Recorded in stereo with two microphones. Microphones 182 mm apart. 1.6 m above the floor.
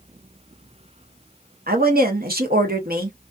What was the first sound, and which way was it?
A woman speaking, 55° right (ahead or behind).